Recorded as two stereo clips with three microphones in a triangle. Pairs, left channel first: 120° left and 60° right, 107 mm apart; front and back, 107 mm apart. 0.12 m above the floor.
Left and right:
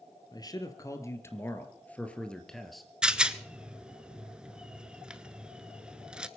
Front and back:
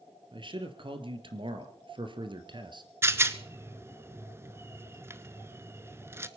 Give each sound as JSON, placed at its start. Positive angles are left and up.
{"t": 0.3, "sound": "a man speaking", "azimuth_deg": 160, "distance_m": 2.5}
{"t": 3.0, "sound": "a rattle", "azimuth_deg": -135, "distance_m": 0.9}